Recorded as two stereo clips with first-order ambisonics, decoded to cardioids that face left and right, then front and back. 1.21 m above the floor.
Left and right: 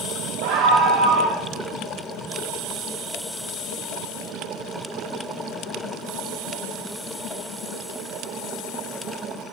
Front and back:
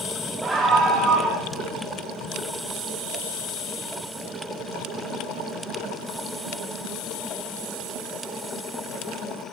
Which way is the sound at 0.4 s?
100° right.